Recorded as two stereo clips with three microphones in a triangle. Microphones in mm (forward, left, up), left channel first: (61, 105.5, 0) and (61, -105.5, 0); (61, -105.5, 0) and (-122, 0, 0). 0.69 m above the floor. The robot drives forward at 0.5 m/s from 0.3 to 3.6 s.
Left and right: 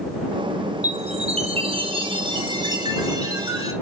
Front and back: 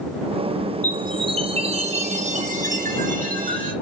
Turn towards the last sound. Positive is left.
turn(degrees=-160)